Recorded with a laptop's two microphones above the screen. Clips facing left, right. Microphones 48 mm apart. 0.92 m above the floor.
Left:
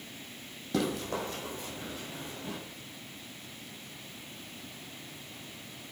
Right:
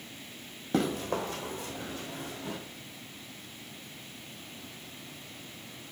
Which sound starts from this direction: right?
Running footsteps, at 0.7 s.